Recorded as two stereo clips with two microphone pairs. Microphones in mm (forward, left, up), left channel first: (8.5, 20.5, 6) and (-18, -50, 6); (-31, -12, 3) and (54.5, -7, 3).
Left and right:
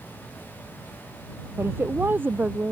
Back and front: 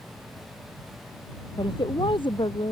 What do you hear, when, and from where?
1.6 s a woman speaking: 165° right; by 2.7 s 175° right